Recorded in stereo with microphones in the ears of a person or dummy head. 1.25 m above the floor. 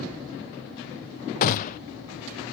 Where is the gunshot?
45° left (ahead or behind), 0.5 m.